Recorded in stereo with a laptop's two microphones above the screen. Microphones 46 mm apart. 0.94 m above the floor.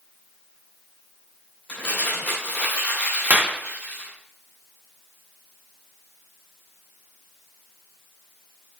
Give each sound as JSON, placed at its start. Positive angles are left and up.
{"t": 1.7, "sound": "crumpling", "side_deg": 45, "distance_m": 2.5}
{"t": 3.3, "sound": "a clap", "side_deg": -35, "distance_m": 0.9}